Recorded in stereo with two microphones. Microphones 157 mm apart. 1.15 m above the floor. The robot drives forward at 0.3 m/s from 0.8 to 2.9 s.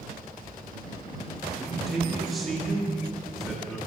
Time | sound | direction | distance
1.6 | a man speaking | centre (ahead or behind) | 3 m